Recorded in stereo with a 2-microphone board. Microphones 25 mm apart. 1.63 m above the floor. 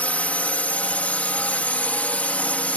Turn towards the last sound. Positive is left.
turn(degrees=80)